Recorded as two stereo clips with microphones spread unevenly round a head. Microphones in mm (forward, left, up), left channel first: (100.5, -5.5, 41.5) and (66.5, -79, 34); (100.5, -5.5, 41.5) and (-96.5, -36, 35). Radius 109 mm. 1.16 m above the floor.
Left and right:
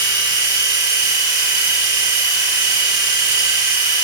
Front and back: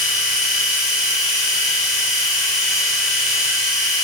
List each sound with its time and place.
0.0 s a machine running: 80° right, 1.1 m